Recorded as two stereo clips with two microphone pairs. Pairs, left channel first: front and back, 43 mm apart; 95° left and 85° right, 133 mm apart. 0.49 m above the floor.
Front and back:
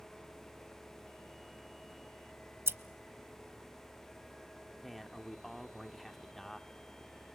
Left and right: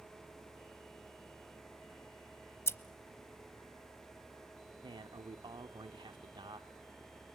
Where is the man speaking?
85° right, 1.0 m.